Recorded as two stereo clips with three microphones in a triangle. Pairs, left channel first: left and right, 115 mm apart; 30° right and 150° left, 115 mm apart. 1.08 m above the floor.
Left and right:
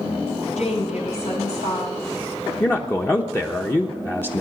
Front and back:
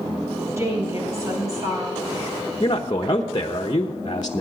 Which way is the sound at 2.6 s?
20° left.